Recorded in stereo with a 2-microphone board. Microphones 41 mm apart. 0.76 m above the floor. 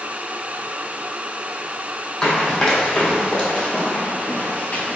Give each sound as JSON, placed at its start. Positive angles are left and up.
{"t": 2.2, "sound": "running footsteps", "side_deg": 20, "distance_m": 1.7}